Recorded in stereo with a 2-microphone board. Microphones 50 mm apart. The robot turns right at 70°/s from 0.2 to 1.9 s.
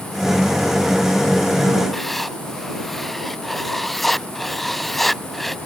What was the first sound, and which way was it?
Writing, centre (ahead or behind).